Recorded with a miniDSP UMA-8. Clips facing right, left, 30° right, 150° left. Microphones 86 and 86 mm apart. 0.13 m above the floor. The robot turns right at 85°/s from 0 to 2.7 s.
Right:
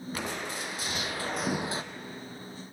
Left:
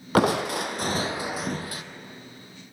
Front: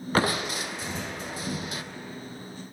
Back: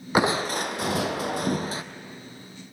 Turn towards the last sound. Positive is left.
turn(degrees=-70)